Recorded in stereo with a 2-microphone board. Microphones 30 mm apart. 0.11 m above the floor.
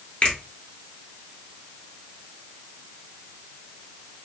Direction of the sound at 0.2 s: 40° left (ahead or behind).